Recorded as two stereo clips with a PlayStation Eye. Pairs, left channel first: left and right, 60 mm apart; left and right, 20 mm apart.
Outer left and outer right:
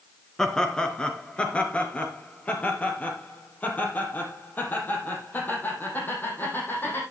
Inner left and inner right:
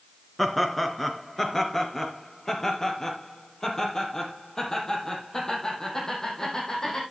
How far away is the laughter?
About 1.7 m.